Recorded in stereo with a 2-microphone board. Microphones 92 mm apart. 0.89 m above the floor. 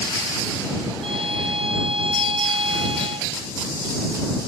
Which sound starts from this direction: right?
A violin, at 1.0 s.